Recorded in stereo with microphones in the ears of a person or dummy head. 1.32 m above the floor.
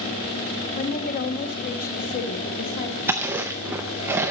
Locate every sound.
0.8 s a woman speaking: 45° left (ahead or behind), 1.0 m
3.1 s chewing: 10° right (ahead or behind), 0.5 m